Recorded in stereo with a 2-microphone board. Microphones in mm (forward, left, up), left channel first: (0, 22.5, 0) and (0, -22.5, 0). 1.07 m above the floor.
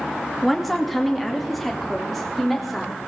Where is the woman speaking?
Centre (ahead or behind), 1.6 m.